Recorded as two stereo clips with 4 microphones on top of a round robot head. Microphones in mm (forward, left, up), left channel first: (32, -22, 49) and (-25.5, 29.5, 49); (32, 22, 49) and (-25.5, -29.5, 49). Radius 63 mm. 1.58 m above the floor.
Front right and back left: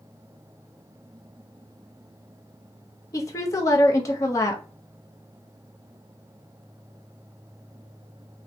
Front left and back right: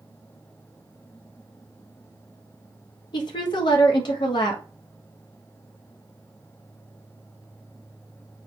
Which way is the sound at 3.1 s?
10° left.